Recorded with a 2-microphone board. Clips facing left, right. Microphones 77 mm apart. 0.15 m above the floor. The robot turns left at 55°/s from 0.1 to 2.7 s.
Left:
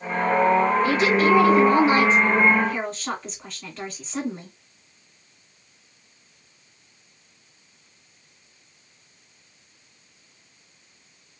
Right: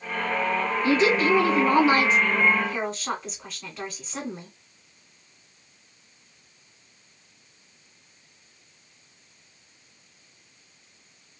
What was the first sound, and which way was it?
A woman speaking, 75° right.